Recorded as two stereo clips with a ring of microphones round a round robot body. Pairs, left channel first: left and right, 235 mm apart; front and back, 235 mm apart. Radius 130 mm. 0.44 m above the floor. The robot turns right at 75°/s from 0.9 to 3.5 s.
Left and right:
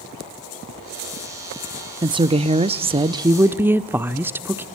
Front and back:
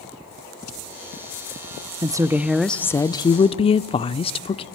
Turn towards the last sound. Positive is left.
turn(degrees=-20)